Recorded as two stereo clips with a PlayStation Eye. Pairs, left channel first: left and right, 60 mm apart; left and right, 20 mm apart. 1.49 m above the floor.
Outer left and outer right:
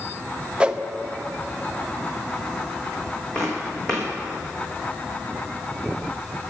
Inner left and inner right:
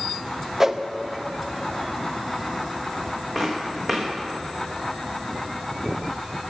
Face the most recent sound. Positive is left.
turn(degrees=10)  # may be behind; listen again after turning